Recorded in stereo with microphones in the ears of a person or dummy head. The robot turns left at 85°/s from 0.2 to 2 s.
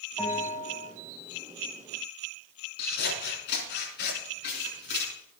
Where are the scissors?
65° left (ahead or behind), 5.5 m.